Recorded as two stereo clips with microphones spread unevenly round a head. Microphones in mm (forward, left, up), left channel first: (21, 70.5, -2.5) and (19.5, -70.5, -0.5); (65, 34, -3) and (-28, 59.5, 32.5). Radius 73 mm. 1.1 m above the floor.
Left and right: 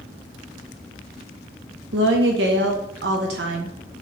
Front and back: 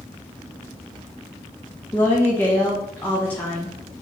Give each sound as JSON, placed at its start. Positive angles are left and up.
{"t": 1.9, "sound": "a woman speaking", "azimuth_deg": -90, "distance_m": 0.7}